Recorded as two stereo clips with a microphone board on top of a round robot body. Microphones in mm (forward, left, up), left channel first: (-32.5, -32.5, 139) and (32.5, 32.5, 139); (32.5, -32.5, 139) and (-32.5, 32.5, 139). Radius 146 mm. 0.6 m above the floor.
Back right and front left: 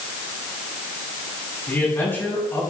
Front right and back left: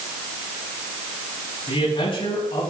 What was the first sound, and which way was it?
A man speaking, 65° right.